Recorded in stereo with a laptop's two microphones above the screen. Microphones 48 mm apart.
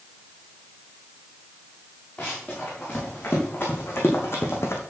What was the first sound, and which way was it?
Running footsteps, 35° left (ahead or behind).